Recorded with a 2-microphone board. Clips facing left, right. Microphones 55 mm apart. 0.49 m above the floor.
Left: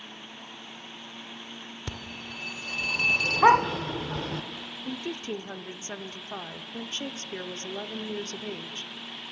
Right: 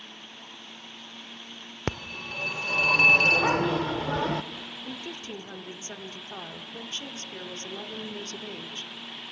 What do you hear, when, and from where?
1.9 s a phone ringing: 60° right (ahead or behind), 0.6 m
3.4 s a dog barking: 50° left (ahead or behind), 0.9 m
4.8 s a woman speaking: 30° left (ahead or behind), 0.9 m